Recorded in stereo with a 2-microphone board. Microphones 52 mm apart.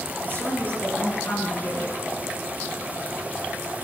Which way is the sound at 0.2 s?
35° left (ahead or behind).